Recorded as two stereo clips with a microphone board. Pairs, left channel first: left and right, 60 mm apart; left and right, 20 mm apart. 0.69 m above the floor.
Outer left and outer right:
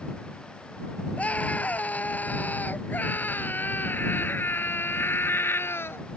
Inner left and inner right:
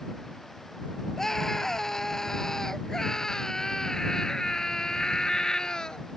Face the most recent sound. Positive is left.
turn(degrees=40)  # may be behind; listen again after turning